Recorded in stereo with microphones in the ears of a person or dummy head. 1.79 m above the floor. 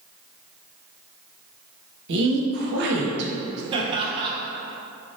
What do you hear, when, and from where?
2.1 s a woman speaking: 65° right (ahead or behind), 0.8 m
3.7 s laughter: 25° right (ahead or behind), 0.7 m